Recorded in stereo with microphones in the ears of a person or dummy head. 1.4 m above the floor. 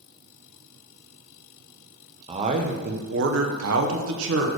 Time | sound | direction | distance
2.3 | a man speaking | 35° right (ahead or behind) | 0.9 m